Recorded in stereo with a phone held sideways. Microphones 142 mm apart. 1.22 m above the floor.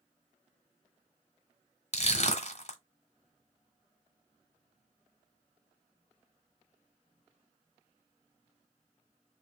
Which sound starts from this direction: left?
Crushing, at 1.9 s.